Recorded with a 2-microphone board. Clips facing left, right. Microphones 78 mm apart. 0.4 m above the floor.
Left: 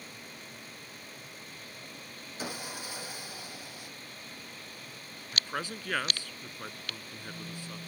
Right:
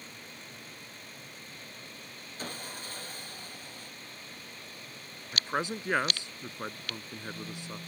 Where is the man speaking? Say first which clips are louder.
Right 4 dB; 20° right (ahead or behind).